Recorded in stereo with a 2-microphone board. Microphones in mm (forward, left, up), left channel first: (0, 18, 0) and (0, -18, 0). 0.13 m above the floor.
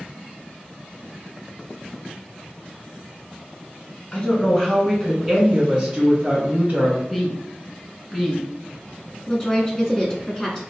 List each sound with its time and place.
4.1 s a woman speaking: 30° left (ahead or behind), 1.3 m; by 7.0 s 40° right (ahead or behind), 2.0 m
7.1 s a woman speaking: centre (ahead or behind), 1.3 m
9.3 s a woman speaking: 15° left (ahead or behind), 1.1 m